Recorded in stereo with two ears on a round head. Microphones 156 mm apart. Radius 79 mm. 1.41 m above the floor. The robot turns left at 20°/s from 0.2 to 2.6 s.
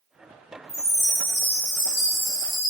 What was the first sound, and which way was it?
A chime, 160° left.